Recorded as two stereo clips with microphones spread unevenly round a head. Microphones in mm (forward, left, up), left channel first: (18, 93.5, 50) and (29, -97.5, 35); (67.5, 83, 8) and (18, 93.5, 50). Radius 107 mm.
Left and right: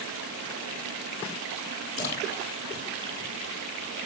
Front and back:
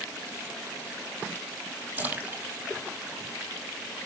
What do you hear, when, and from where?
2.0 s a splash: 135° left, 4.5 m